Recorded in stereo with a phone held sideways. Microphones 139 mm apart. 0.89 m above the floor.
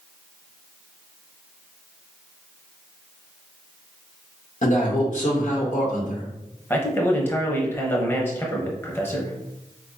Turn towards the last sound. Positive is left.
turn(degrees=15)  # may be behind; listen again after turning